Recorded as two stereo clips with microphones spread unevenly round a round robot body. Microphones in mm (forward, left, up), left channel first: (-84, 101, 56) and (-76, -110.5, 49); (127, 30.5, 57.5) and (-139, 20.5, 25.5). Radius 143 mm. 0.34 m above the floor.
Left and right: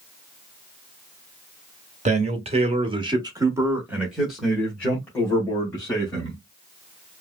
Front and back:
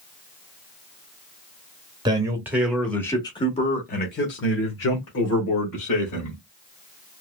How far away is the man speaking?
About 1.3 m.